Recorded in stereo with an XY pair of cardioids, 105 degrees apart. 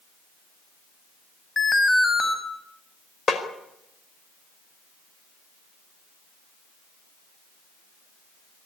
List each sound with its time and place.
1.6 s an alarm: 25° left, 6 m
3.3 s a snare drum: 35° left, 4.5 m